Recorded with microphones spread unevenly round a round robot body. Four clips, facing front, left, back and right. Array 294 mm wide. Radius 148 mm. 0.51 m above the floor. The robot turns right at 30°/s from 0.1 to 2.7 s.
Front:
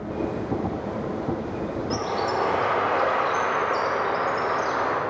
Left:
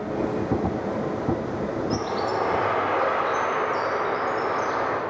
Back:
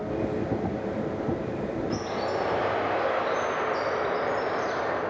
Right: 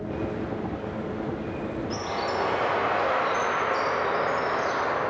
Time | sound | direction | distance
1.9 | a bird | 25° left | 1.4 m